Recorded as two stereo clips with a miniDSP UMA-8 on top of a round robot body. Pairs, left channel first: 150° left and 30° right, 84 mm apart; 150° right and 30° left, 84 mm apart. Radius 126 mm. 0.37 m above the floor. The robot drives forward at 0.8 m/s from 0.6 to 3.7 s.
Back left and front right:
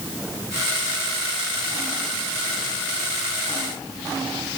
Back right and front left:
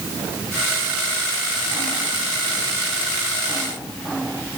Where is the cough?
I don't hear a cough.